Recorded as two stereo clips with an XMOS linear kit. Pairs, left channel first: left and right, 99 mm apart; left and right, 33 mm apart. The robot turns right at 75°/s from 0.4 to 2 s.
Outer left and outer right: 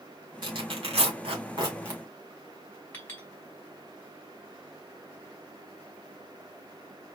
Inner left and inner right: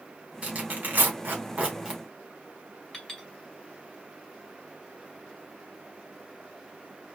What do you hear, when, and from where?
0.4 s tearing paper: 50° right (ahead or behind), 2.5 m; by 2.0 s 15° right (ahead or behind), 2.5 m
2.9 s a clink: 20° left (ahead or behind), 2.5 m